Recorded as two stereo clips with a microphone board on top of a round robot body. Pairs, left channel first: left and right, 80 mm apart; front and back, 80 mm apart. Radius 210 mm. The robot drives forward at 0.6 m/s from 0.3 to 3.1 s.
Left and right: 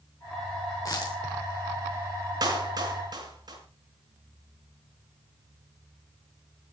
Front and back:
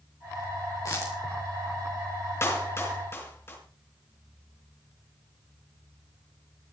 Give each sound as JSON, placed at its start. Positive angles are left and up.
{"t": 0.8, "sound": "a dropped coin", "azimuth_deg": 45, "distance_m": 3.5}
{"t": 2.4, "sound": "a clap", "azimuth_deg": -55, "distance_m": 6.0}